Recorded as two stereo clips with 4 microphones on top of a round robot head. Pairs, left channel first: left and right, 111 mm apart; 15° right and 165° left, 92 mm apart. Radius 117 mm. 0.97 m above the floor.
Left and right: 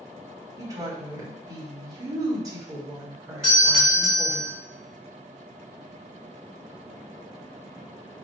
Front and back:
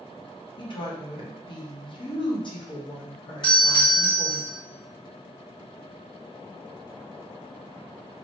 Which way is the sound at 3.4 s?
10° left.